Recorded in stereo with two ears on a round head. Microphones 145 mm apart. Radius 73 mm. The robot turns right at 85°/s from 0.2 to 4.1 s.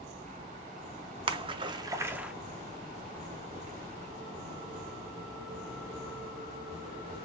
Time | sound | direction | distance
1.3 | a splash | 30° right (ahead or behind) | 0.6 m